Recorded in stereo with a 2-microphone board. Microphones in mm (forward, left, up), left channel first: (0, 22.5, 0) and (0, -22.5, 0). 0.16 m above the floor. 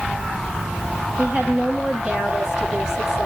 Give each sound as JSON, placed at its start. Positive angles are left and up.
{"t": 1.2, "sound": "a woman speaking", "side_deg": -25, "distance_m": 4.0}